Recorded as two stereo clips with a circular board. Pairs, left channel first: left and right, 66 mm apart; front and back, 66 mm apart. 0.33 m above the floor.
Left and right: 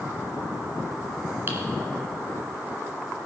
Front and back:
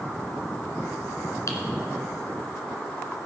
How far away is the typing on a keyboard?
About 2 m.